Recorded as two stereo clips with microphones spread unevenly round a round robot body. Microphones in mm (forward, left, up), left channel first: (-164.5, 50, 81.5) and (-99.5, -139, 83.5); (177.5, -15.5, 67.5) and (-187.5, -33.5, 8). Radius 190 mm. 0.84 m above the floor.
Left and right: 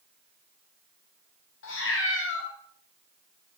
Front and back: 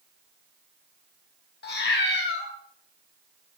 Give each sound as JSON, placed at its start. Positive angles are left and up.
{"t": 1.6, "sound": "a cat meowing", "azimuth_deg": 65, "distance_m": 1.5}